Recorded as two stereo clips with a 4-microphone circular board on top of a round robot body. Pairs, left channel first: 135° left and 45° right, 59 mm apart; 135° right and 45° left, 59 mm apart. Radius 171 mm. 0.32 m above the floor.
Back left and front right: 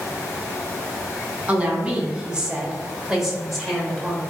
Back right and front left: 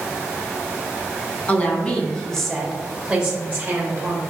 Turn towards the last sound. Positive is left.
turn(degrees=55)